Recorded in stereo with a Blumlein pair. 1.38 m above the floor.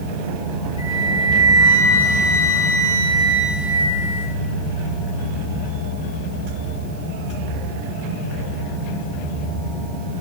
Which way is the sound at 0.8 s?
65° left.